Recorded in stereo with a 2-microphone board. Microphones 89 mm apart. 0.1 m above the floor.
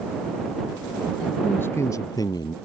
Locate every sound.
1.4 s a man speaking: 15° left (ahead or behind); by 2.5 s 55° left (ahead or behind)